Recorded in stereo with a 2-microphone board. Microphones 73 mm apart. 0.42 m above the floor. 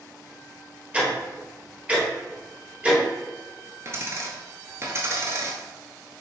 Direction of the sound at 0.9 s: 20° right (ahead or behind).